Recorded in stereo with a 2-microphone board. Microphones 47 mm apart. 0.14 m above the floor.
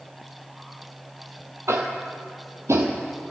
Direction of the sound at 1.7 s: 75° right (ahead or behind).